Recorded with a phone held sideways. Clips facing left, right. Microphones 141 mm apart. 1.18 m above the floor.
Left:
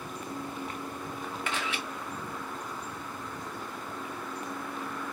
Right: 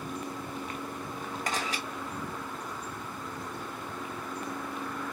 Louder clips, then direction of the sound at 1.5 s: Right 1 dB; 40° right (ahead or behind).